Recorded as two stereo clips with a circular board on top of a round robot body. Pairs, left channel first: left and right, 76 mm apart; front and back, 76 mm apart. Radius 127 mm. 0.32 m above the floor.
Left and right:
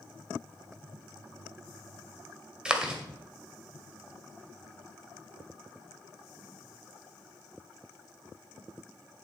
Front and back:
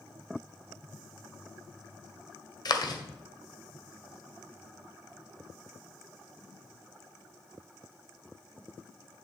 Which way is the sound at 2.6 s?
15° right.